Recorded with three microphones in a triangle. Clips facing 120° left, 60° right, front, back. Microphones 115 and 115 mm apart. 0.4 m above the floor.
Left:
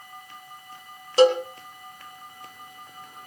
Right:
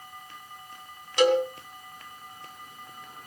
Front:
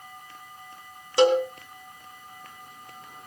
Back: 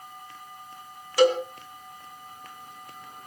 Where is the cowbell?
65° left, 2.5 m.